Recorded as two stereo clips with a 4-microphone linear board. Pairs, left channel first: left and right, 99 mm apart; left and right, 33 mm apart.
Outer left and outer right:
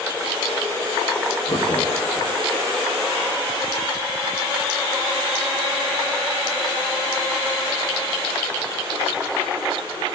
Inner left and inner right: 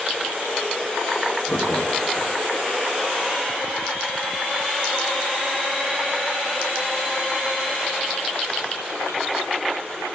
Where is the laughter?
55° left (ahead or behind), 1.8 m.